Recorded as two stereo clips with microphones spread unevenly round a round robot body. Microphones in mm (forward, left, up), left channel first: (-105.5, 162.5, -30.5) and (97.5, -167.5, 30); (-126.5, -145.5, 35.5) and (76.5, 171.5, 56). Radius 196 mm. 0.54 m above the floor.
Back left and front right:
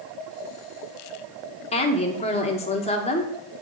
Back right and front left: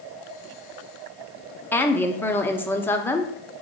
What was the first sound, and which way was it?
A woman speaking, 165° left.